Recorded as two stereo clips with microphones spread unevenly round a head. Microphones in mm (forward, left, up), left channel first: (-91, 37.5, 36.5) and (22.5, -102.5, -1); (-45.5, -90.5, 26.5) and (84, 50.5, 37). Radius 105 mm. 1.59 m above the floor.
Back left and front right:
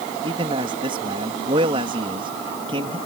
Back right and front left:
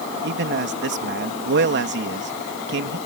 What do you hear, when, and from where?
0.2 s a man speaking: 20° left